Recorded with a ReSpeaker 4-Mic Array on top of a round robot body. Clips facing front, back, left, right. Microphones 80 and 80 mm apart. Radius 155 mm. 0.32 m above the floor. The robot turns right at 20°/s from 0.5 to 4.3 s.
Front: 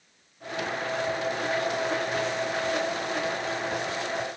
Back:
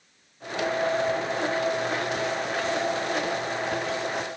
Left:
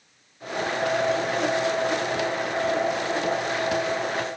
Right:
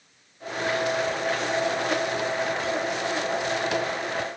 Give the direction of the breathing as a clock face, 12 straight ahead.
I don't hear breathing.